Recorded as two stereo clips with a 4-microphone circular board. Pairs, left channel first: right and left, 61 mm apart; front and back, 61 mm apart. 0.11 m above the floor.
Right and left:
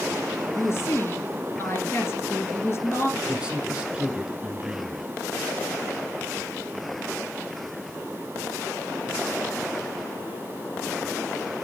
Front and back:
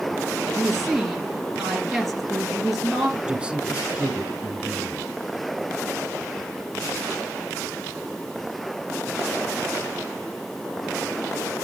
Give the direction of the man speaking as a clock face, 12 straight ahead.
7 o'clock.